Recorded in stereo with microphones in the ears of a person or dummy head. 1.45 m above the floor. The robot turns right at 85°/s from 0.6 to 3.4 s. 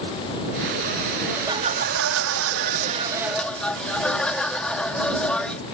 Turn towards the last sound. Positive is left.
turn(degrees=5)